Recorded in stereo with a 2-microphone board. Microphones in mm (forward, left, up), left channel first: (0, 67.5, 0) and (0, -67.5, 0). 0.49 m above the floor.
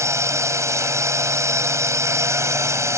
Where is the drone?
20° right (ahead or behind).